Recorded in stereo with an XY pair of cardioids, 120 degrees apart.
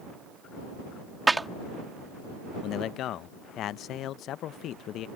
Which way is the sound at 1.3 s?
15° right.